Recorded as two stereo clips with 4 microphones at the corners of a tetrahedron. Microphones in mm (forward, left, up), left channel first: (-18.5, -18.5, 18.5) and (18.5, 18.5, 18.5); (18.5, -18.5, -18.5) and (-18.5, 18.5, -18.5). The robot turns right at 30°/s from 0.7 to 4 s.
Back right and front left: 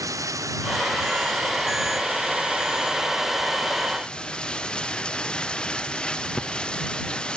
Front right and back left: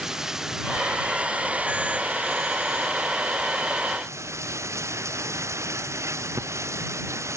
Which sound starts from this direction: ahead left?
Running water, at 0.0 s.